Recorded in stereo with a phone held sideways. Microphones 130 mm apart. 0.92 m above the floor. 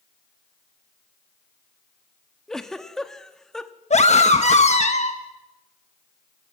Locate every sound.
2.5 s a giggle: 5° left (ahead or behind), 1.1 m
3.9 s a scream: 60° left (ahead or behind), 1.0 m